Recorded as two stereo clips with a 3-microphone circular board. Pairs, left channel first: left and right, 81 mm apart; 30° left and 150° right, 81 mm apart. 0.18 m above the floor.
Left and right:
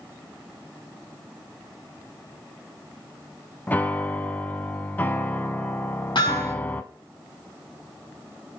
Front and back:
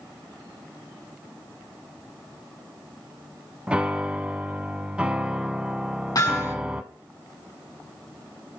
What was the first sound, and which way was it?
A piano, 145° left.